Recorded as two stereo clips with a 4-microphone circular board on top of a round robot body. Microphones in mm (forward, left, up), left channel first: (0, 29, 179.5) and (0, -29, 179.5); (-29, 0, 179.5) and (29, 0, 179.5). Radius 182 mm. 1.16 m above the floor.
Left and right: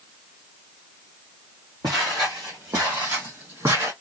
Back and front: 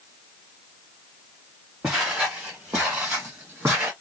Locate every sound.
1.8 s footsteps: 85° right, 1.3 m; by 3.9 s 50° right, 2.5 m